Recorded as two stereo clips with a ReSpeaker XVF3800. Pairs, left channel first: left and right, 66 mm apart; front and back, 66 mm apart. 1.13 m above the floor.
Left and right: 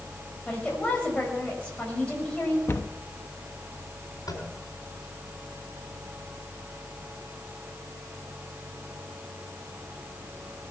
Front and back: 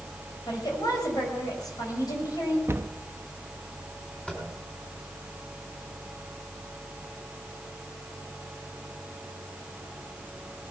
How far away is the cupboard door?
About 0.9 m.